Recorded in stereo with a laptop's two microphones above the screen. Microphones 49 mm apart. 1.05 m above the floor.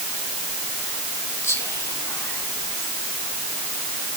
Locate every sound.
1.4 s whispering: 75° left (ahead or behind), 3.5 m